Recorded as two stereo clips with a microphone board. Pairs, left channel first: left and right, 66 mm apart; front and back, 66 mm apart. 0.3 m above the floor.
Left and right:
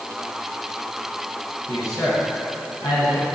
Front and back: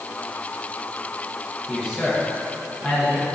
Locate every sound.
1.7 s a man speaking: 95° left, 3.5 m